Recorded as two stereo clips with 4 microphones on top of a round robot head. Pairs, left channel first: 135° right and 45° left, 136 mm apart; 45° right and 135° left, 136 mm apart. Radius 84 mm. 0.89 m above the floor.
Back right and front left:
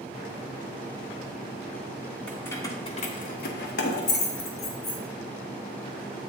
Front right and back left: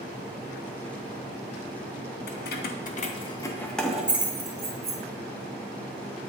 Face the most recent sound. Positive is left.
turn(degrees=-160)